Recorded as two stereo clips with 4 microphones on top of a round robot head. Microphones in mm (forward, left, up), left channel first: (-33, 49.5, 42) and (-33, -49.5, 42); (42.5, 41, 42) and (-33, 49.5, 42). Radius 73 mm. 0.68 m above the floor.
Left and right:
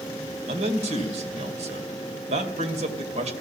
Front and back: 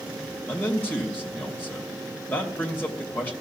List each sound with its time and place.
0.5 s a man speaking: 80° right, 2.5 m